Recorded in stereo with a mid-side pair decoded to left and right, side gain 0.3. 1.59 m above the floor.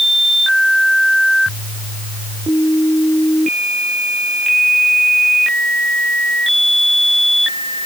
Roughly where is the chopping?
I don't hear chopping.